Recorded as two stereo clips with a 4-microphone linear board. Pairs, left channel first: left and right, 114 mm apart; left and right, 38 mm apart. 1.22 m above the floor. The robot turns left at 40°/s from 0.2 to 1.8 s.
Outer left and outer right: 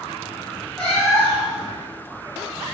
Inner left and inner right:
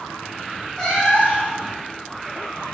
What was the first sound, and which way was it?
A cat meowing, 170° left.